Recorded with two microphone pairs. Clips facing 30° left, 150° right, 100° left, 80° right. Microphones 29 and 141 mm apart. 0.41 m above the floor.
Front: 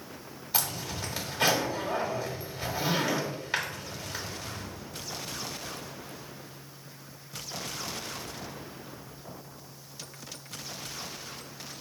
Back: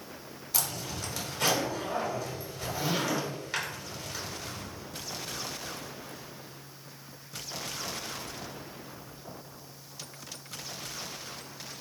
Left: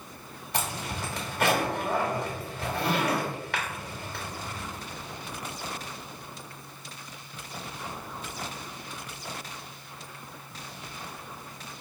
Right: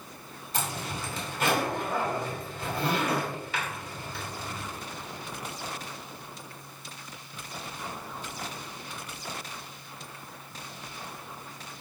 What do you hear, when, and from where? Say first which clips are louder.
0.5 s a zipper: front 2 dB, left 1 dB; 100° left, 1.4 m